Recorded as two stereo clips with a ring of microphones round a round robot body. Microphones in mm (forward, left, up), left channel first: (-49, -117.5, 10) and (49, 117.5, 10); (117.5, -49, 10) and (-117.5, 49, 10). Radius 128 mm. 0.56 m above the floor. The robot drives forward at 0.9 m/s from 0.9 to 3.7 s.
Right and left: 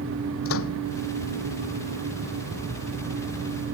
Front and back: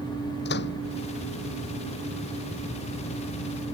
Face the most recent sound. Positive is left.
turn(degrees=-80)